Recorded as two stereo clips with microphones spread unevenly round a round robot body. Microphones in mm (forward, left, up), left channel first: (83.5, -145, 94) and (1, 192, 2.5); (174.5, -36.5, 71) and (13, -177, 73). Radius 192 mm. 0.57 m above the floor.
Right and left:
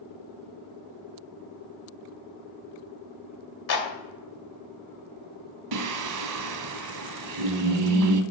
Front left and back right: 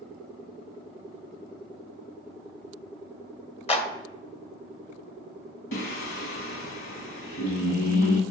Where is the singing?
65° left, 0.6 m.